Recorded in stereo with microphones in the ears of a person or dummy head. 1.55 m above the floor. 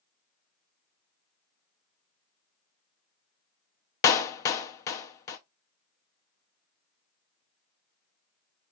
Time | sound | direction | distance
4.0 | a clap | 20° left (ahead or behind) | 0.5 m